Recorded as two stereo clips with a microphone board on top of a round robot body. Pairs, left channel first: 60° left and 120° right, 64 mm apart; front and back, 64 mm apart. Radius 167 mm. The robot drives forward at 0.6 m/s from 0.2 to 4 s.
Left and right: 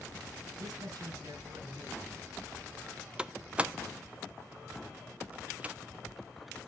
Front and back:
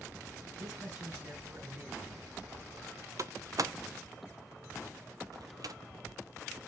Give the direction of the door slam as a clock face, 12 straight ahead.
6 o'clock.